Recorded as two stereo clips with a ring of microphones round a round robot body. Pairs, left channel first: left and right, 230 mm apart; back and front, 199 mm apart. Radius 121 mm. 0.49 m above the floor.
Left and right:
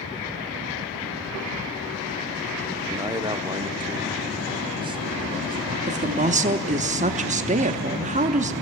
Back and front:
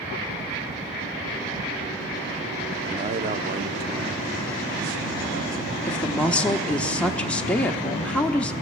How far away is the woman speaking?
About 0.7 m.